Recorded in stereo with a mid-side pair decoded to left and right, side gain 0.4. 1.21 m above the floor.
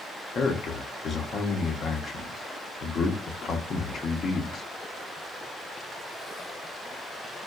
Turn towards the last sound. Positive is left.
turn(degrees=60)